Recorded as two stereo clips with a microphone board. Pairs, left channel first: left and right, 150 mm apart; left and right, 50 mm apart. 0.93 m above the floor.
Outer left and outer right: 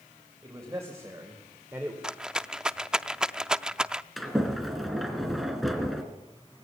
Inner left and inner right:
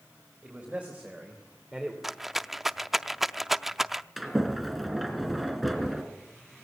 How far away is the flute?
I don't hear a flute.